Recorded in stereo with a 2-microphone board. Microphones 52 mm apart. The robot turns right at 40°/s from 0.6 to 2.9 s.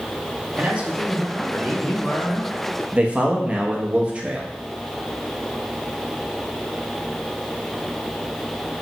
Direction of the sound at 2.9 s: 25° right (ahead or behind).